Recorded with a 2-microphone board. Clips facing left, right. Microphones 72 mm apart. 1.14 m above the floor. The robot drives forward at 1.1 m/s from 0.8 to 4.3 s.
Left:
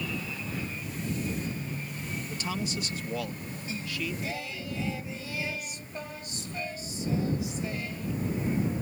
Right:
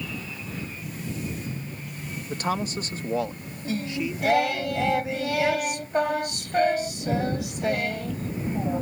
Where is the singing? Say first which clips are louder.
Right 7 dB; 65° right (ahead or behind); by 8.8 s 70° right (ahead or behind).